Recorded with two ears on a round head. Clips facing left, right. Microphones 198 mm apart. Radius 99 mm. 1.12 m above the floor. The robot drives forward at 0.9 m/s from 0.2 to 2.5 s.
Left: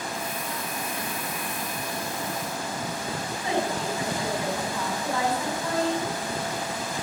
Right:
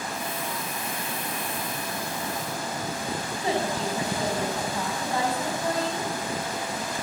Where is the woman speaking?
30° right (ahead or behind), 8 m.